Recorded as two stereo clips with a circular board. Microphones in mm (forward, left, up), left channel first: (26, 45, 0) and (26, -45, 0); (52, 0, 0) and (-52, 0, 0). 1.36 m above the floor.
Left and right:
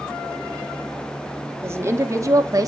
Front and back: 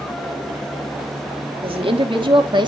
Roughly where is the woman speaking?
Behind right.